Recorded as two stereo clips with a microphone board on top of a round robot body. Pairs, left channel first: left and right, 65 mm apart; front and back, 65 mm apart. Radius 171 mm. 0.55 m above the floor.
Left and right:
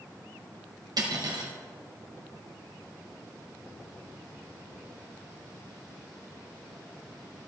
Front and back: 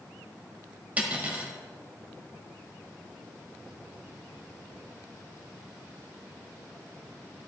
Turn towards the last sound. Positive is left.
turn(degrees=-115)